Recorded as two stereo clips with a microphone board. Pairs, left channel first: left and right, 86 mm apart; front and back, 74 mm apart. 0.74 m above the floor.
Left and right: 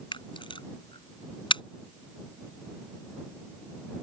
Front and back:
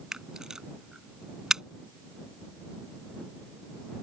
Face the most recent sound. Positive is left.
turn(degrees=100)